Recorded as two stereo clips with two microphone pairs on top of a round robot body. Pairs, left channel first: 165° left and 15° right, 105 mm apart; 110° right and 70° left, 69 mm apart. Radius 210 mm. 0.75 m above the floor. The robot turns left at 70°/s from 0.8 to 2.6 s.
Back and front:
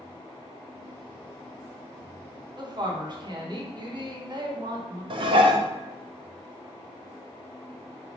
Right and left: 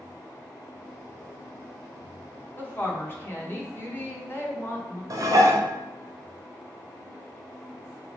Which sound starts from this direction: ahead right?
A woman speaking, at 2.6 s.